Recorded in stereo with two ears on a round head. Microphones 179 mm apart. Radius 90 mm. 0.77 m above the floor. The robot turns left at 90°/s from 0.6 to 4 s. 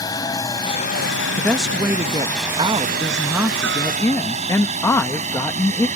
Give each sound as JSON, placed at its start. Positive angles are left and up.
{"t": 0.0, "sound": "a helicopter", "side_deg": 20}
{"t": 1.4, "sound": "a woman speaking", "side_deg": 10}